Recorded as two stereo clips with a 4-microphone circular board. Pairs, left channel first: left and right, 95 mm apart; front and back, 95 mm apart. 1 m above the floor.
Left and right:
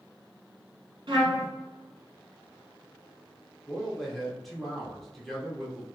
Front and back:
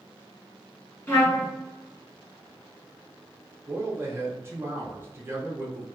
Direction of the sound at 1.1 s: 65° right.